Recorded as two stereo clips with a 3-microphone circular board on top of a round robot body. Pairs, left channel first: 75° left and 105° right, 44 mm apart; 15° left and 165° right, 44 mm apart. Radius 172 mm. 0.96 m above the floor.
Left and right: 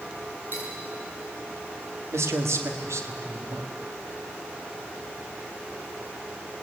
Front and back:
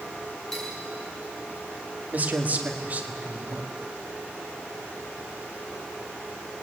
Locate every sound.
0.5 s cutlery clinking: 65° right, 8.5 m
2.1 s a man speaking: 110° right, 2.5 m